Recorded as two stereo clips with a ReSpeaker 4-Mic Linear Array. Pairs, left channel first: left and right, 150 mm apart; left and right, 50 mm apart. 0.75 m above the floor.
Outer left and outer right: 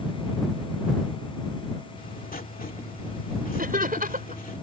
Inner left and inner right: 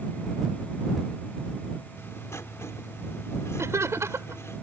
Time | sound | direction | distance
2.0 | writing | 70° left (ahead or behind) | ?
3.6 | laughter | 70° right (ahead or behind) | ?